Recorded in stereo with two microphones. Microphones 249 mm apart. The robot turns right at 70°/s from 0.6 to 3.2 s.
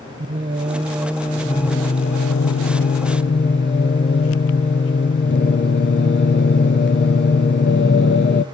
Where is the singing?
50° right, 0.6 m; by 8.4 s 130° left, 0.6 m.